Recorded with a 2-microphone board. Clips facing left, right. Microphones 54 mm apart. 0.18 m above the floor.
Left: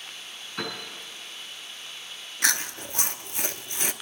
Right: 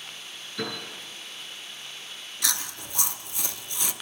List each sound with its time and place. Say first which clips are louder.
0.6 s a piano: right 1 dB; 65° left (ahead or behind), 6.5 m
2.4 s chewing: left 6 dB; 50° left (ahead or behind), 0.5 m